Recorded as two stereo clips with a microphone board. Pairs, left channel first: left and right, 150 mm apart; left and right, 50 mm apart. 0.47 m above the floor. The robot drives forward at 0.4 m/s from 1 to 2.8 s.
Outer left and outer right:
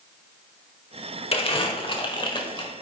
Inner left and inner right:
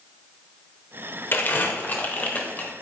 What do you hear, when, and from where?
1.3 s crumpling: 40° left (ahead or behind), 1.1 m; by 2.7 s 30° left (ahead or behind), 1.4 m